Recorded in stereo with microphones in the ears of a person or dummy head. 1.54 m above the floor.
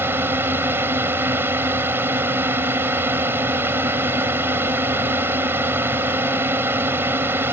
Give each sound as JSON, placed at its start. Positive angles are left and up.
{"t": 0.0, "sound": "a drone", "side_deg": -10}